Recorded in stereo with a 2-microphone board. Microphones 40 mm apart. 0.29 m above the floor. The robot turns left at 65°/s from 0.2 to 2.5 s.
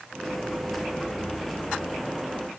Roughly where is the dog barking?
I don't hear a dog barking.